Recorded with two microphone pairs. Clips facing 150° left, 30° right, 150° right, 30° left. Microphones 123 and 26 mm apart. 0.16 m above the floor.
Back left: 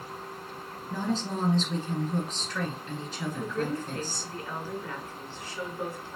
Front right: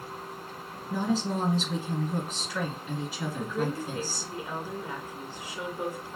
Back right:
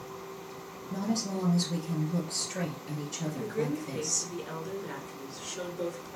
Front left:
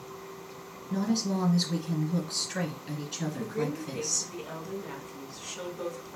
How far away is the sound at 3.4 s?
About 1.4 m.